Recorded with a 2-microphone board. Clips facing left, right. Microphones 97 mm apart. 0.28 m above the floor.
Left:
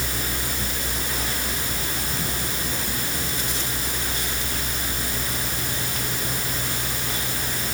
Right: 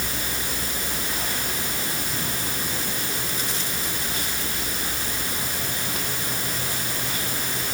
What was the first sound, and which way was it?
Only background noise.